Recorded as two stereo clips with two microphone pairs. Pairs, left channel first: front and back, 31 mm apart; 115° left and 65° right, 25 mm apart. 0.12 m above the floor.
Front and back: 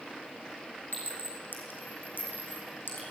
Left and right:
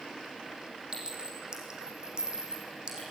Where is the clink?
10° right, 5.5 m.